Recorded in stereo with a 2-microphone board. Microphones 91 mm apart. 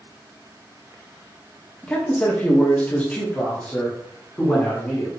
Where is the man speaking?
10° left (ahead or behind), 1.3 m; by 5.1 s 15° left (ahead or behind), 2 m.